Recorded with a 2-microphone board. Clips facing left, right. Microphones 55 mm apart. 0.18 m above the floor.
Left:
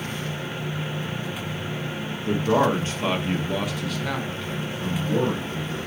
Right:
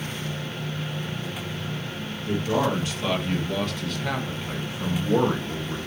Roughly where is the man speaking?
Left.